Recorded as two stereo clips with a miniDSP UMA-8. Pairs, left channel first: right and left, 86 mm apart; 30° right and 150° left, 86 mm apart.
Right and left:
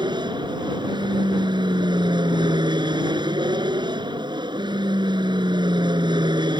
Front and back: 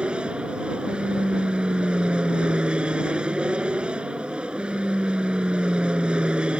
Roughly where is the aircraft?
Left.